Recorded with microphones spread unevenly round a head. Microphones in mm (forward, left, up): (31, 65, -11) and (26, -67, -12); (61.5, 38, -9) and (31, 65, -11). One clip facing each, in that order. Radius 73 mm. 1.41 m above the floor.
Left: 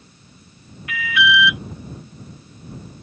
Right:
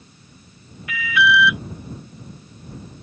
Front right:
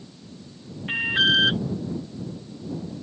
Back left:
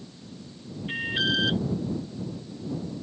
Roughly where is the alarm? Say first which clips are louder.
Right 1 dB, front right 6 dB; right.